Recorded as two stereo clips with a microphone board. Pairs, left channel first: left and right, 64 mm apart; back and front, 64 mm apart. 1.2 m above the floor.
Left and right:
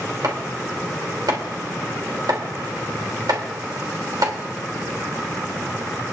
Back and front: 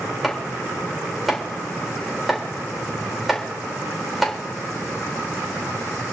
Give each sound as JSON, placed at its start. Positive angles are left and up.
{"t": 0.2, "sound": "chopping", "azimuth_deg": -90, "distance_m": 3.0}